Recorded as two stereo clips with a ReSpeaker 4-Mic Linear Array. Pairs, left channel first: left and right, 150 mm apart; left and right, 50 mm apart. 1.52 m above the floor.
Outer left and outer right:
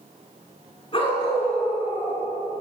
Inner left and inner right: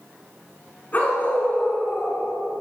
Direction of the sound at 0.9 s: 35° left (ahead or behind).